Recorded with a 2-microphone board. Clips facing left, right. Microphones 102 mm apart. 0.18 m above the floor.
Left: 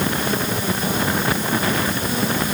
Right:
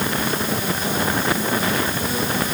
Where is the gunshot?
I don't hear a gunshot.